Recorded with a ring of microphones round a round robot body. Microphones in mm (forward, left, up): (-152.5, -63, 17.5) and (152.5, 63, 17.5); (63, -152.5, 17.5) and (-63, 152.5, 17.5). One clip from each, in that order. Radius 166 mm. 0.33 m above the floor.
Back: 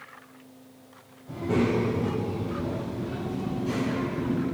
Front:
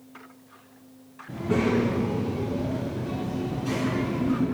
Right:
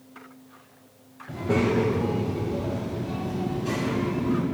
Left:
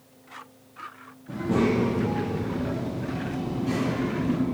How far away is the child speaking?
About 1.3 m.